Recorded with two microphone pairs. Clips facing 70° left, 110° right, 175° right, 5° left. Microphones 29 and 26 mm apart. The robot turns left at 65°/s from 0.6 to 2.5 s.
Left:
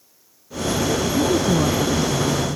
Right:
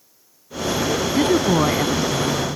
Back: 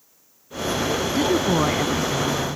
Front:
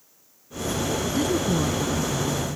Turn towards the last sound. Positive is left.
turn(degrees=160)